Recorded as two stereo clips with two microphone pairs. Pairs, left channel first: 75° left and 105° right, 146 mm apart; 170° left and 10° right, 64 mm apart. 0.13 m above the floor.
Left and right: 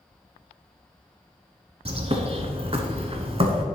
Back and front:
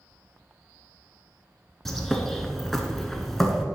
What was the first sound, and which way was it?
A bird, 105° right.